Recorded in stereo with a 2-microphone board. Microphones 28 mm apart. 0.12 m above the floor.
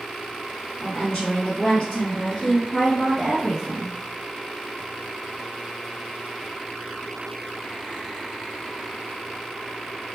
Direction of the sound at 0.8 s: 30° left (ahead or behind).